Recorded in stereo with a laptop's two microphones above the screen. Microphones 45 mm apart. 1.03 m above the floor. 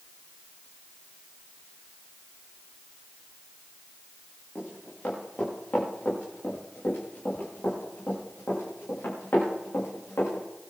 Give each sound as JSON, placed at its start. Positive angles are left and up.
{"t": 4.5, "sound": "running footsteps", "side_deg": 35, "distance_m": 6.5}